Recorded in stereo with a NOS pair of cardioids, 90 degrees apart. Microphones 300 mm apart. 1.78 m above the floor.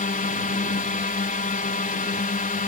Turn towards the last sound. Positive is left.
turn(degrees=25)